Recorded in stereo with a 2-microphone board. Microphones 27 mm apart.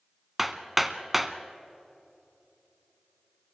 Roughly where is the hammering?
Centre.